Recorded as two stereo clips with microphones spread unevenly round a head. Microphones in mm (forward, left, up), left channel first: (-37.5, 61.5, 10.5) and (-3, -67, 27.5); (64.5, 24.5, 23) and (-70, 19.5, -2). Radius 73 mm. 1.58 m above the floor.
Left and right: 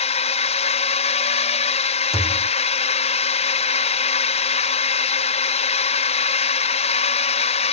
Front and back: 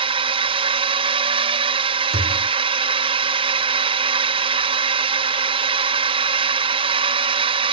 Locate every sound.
0.0 s a drone: 140° left
2.1 s a thud: 165° right